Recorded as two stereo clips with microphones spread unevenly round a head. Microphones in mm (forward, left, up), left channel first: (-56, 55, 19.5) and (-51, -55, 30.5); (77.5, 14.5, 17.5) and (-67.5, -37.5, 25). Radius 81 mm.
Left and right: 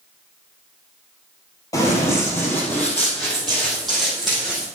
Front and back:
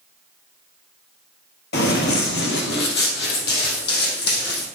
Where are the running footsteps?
20° left, 2 m; by 4.7 s straight ahead, 4 m.